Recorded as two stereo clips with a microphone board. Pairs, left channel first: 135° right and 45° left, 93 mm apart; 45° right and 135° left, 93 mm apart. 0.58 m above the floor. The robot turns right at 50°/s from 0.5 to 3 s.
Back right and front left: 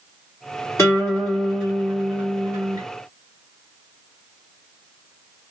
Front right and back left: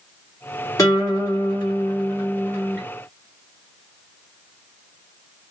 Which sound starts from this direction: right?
A guitar, at 0.8 s.